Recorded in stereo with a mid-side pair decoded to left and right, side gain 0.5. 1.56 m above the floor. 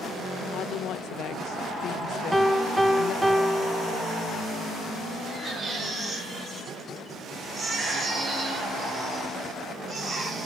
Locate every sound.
0.5 s a woman speaking: 65° left, 1.3 m
2.3 s a piano: 5° right, 1.3 m
5.3 s a baby crying: 40° right, 7 m